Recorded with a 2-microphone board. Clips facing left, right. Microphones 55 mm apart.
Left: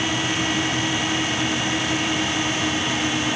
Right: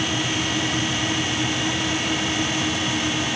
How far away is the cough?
No cough in this recording.